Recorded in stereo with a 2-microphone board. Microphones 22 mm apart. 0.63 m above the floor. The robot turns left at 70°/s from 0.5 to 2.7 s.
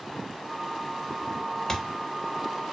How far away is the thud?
About 0.5 m.